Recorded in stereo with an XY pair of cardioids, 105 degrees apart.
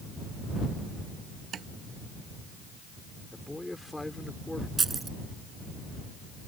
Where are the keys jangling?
30° right.